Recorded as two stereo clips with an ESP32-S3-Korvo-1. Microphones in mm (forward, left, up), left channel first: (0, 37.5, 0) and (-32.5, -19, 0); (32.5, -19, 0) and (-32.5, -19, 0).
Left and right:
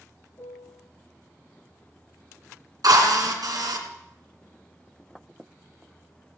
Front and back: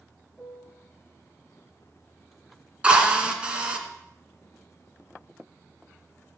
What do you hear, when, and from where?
0.4 s a piano: 65° left, 0.8 m
2.8 s a drill: 105° right, 2 m